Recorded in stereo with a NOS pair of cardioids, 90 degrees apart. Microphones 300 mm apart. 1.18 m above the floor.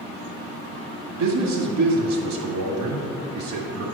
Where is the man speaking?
70° right, 2 m.